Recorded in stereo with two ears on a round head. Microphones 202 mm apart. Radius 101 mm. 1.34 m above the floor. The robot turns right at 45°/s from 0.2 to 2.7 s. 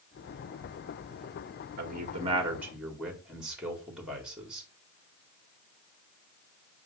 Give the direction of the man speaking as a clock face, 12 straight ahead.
1 o'clock.